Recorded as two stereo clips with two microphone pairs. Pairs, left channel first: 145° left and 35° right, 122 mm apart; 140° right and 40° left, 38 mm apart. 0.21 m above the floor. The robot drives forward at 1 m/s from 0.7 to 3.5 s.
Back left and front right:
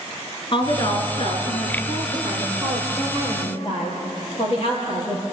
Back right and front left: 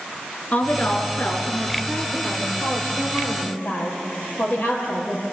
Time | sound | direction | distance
0.5 | a woman speaking | 175° right | 3.5 m